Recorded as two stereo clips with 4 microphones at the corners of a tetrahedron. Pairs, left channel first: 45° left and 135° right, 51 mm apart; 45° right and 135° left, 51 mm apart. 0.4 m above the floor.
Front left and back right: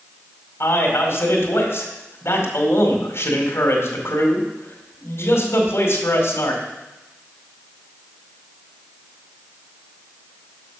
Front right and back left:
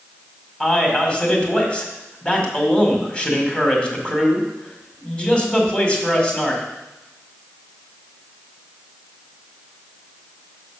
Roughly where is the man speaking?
Ahead left.